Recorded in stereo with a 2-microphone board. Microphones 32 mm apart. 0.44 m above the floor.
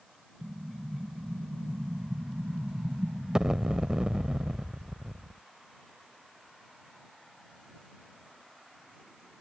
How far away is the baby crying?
No baby crying in this recording.